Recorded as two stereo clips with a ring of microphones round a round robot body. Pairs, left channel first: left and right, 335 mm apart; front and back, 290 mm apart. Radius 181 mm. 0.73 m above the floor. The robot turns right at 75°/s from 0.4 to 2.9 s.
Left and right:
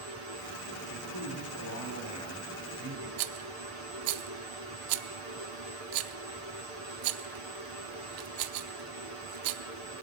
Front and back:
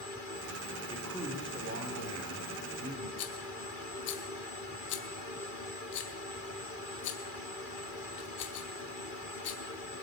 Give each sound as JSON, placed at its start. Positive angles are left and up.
{"t": 0.9, "sound": "a man speaking", "azimuth_deg": 70, "distance_m": 3.0}
{"t": 3.2, "sound": "a rattle", "azimuth_deg": -60, "distance_m": 0.8}